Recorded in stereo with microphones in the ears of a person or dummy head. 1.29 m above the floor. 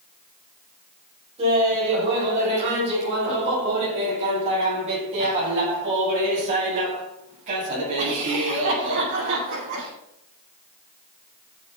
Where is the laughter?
30° right (ahead or behind), 6.5 m; by 9.9 s 40° right (ahead or behind), 11 m.